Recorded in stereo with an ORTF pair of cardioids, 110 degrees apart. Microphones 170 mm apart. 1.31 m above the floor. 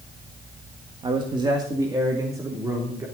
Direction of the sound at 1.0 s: 30° right.